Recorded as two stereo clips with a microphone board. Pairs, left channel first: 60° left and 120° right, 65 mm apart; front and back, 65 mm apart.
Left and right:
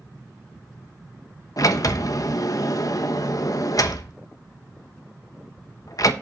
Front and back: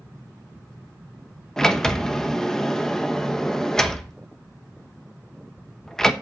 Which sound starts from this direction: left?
A sliding door, at 1.6 s.